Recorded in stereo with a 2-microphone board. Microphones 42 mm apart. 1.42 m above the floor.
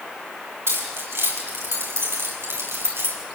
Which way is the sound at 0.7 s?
85° right.